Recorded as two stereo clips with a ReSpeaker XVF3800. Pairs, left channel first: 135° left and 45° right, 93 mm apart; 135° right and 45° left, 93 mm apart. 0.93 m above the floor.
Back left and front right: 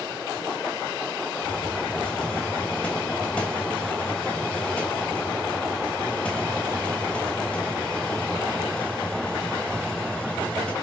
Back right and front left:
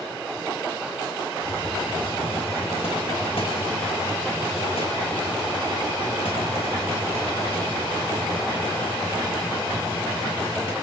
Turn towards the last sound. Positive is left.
turn(degrees=-145)